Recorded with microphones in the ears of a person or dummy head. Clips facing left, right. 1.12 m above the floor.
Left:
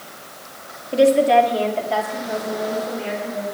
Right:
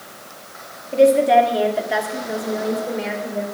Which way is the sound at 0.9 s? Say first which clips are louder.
Right 1 dB; 10° left (ahead or behind).